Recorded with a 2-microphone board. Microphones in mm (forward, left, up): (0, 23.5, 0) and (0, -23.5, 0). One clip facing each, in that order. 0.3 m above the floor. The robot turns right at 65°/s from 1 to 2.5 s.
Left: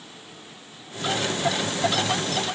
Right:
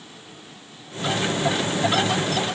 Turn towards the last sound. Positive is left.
No sound to turn to.